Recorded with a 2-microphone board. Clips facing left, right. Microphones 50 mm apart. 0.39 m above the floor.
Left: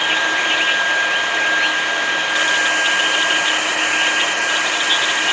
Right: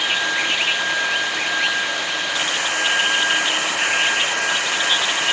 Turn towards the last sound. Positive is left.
No sound to turn to.